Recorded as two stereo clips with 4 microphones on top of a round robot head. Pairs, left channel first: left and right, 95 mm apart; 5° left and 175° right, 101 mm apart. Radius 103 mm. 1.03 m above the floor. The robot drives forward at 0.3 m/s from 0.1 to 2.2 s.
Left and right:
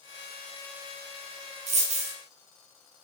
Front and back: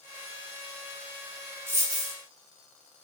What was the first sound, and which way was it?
A dropped coin, 100° right.